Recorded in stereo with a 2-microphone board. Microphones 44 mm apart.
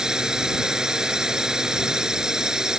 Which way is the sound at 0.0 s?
15° right (ahead or behind).